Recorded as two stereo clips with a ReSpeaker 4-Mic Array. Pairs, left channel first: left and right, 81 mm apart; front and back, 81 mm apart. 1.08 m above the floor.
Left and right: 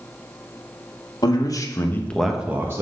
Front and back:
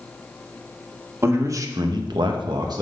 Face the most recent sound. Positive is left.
turn(degrees=-145)